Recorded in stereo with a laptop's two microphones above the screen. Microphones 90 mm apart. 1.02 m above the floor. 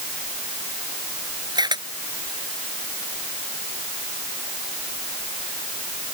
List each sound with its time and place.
1.6 s a camera shutter: 50° right (ahead or behind)